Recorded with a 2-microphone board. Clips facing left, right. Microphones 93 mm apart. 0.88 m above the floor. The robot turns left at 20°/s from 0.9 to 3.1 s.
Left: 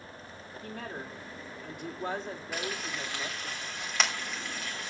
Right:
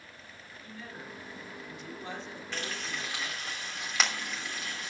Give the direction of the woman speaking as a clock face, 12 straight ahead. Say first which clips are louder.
Left 5 dB; 10 o'clock.